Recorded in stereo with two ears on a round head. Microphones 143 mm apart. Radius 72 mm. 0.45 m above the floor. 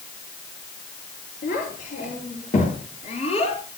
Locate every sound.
1.4 s a child speaking: 50° left (ahead or behind), 8 m; by 3.6 s 35° left (ahead or behind), 6.5 m